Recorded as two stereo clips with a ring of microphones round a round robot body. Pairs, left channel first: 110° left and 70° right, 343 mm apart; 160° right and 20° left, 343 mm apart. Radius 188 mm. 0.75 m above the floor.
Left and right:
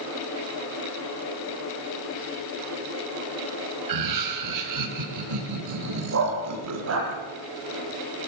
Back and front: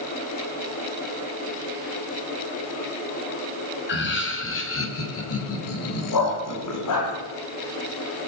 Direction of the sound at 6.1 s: 120° right.